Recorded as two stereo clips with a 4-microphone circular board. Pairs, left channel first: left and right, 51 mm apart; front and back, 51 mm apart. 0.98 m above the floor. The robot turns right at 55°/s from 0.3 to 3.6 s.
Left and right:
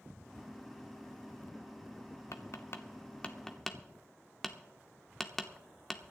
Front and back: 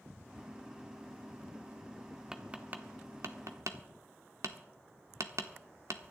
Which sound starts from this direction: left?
Tapping, at 2.3 s.